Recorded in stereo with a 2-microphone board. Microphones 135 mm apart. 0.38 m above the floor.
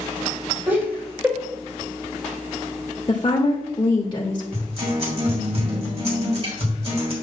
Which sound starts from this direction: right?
A guitar, at 4.5 s.